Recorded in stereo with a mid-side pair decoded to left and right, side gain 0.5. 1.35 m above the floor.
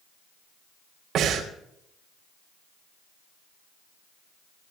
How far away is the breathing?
About 2.5 m.